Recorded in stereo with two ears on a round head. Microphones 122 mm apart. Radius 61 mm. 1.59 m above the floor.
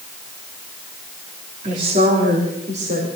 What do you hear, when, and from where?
1.6 s a woman speaking: 55° right (ahead or behind), 4 m